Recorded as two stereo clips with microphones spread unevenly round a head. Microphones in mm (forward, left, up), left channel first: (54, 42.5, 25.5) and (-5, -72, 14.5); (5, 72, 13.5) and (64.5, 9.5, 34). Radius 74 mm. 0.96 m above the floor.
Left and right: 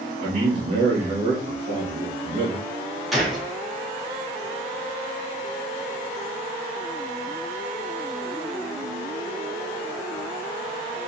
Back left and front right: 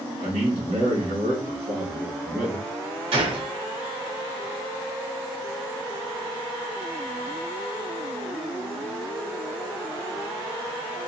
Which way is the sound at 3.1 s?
25° right.